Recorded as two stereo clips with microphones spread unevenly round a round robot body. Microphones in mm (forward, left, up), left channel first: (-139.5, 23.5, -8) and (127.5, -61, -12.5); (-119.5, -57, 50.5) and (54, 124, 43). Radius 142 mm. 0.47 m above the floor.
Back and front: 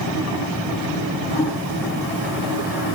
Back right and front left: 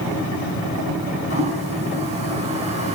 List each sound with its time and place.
1.3 s a toilet flushing: 110° left, 6.5 m